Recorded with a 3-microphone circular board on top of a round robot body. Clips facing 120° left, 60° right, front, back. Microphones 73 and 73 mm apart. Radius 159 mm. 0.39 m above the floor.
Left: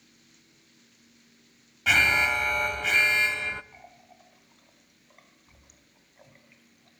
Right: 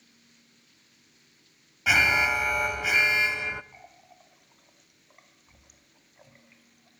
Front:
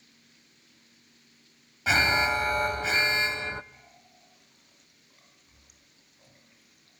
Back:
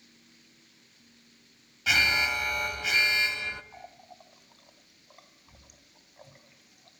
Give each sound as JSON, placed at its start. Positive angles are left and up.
{"t": 1.9, "sound": "an alarm", "azimuth_deg": 20, "distance_m": 0.8}
{"t": 3.7, "sound": "a running tap", "azimuth_deg": -145, "distance_m": 2.5}